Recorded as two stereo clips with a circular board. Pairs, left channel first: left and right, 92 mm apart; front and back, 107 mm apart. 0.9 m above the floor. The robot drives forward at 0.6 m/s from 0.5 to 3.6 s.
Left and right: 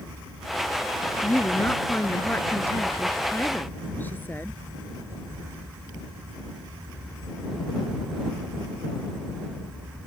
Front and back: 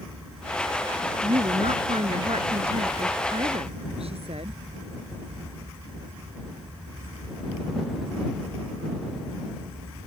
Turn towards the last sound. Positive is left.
turn(degrees=160)